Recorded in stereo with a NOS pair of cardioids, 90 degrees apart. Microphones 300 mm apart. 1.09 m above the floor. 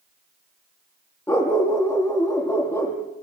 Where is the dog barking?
10° left, 9.5 m.